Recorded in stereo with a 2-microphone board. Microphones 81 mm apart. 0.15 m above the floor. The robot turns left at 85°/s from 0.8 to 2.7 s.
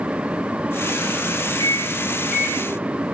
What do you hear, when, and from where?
1.6 s a microwave: 55° left (ahead or behind), 2.5 m; by 3.0 s 20° right (ahead or behind), 2.5 m